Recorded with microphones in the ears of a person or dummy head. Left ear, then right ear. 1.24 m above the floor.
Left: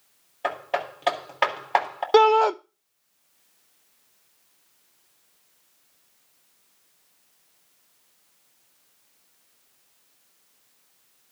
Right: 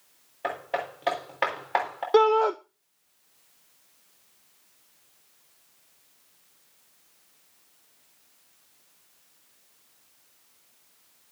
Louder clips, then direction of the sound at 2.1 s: Left 3 dB; 30° left (ahead or behind).